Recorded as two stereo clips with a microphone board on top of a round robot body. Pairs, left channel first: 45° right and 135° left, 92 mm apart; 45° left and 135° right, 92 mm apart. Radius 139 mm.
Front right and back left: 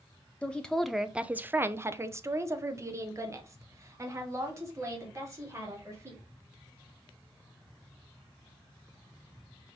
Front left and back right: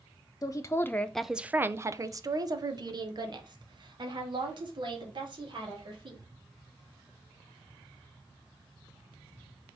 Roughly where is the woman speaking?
Ahead left.